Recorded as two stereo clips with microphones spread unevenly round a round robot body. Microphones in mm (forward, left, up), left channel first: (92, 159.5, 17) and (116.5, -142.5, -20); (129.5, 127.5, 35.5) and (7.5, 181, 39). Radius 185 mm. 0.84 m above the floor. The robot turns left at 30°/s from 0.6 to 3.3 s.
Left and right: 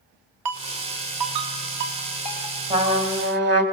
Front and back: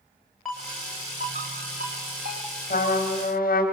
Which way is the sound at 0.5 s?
115° right.